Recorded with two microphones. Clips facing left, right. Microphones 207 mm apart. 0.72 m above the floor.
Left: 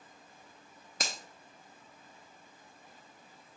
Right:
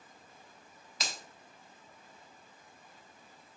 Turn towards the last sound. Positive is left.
turn(degrees=45)  # may be behind; listen again after turning